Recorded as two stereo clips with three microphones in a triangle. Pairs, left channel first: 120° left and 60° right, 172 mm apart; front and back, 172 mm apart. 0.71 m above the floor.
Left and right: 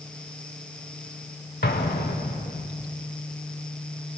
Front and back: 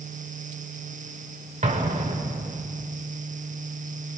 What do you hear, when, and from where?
1.6 s an explosion: 135° left, 1.2 m